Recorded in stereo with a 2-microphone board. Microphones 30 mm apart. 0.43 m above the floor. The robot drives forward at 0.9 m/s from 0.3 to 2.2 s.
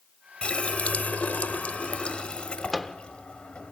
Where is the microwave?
5° left (ahead or behind), 0.6 m.